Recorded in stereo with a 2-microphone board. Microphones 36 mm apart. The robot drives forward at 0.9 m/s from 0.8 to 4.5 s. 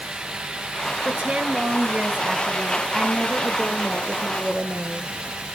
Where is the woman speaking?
30° right (ahead or behind), 2.5 m; by 5.1 s 15° right (ahead or behind), 5 m.